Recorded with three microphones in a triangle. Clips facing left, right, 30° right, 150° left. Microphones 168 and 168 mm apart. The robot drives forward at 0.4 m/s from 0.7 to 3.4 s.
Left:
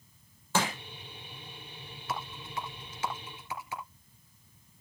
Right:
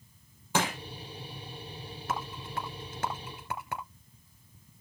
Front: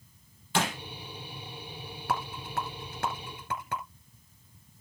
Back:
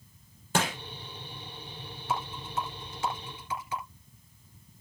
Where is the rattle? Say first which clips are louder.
Right 2 dB, even; 55° right, 3 m; by 3.8 s 60° right, 3 m.